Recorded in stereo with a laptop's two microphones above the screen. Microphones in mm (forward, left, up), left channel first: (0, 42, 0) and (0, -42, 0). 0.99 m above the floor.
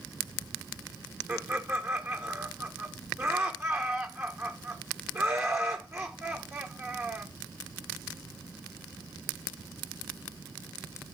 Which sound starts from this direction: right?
Laughter, at 1.3 s.